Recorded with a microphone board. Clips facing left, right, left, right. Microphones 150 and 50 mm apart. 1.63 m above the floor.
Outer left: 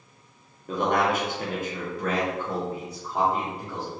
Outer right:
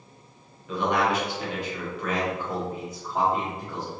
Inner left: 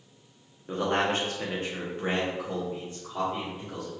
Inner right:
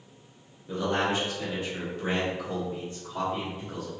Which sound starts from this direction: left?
A man speaking, at 0.7 s.